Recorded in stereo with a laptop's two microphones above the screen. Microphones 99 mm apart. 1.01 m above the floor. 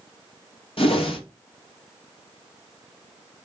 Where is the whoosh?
65° left (ahead or behind), 1.4 m.